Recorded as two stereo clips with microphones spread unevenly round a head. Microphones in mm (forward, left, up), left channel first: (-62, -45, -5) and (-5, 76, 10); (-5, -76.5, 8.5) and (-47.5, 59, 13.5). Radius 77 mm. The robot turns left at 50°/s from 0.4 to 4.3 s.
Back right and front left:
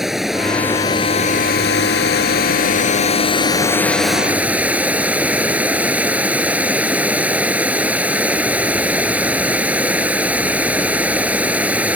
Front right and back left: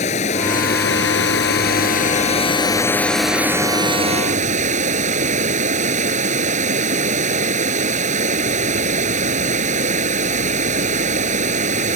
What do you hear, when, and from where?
0.0 s running water: 20° right; by 12.0 s 145° left